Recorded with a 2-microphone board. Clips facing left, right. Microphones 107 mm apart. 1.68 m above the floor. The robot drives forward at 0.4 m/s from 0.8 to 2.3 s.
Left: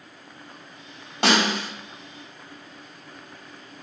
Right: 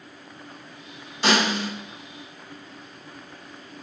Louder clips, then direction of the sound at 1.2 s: Even; 70° left (ahead or behind).